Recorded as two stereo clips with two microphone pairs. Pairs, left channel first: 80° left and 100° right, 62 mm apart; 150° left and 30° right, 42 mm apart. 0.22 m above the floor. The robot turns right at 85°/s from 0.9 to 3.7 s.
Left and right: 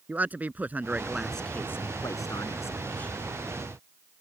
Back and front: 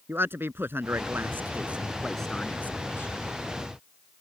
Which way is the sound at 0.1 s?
40° right.